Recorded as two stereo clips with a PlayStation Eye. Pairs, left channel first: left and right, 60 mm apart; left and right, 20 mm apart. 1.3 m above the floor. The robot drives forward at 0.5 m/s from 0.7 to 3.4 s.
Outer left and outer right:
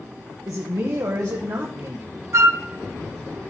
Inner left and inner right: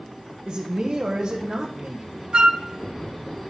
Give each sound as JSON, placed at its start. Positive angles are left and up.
{"t": 0.5, "sound": "a man speaking", "side_deg": -65, "distance_m": 1.1}
{"t": 2.3, "sound": "a flute", "side_deg": -55, "distance_m": 0.6}